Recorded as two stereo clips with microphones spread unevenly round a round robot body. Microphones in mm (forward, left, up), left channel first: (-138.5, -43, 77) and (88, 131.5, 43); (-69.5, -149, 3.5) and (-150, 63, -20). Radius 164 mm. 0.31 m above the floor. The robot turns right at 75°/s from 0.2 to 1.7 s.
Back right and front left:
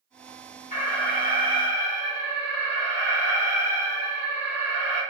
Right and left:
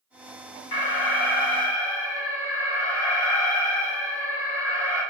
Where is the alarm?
80° right, 3.5 m; by 5.0 s 5° right, 3.5 m.